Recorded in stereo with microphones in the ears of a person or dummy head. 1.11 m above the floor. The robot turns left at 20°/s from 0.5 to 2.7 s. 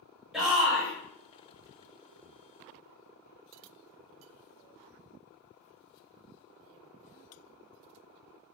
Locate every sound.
0.3 s a shout: centre (ahead or behind), 1.5 m; by 0.9 s 10° right (ahead or behind), 1.5 m